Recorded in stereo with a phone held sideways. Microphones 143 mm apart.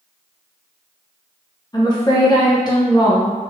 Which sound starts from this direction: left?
A woman speaking, at 1.7 s.